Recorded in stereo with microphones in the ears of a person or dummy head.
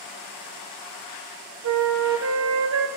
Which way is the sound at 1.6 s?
65° right (ahead or behind).